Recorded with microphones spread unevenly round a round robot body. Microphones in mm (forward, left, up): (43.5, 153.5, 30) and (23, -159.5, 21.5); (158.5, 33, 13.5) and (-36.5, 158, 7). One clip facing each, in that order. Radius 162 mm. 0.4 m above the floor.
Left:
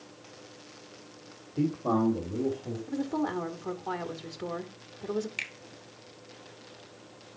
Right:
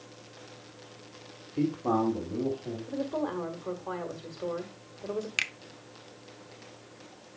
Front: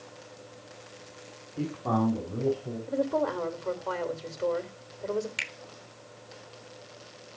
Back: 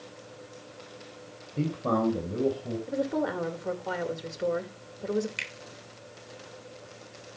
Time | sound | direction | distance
1.6 | a man speaking | 165° right | 1.8 m
2.9 | a woman speaking | 85° left | 1.6 m
5.4 | a finger snap | 120° right | 0.6 m